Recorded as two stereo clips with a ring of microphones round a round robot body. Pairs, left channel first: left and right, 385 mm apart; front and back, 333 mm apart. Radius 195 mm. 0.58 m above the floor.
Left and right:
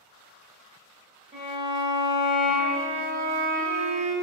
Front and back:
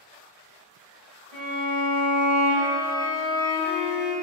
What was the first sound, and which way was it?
A violin, 165° right.